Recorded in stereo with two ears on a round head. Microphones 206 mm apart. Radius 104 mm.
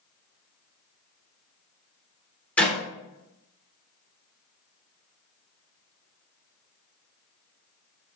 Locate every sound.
2.6 s a clap: 5° left (ahead or behind), 3.5 m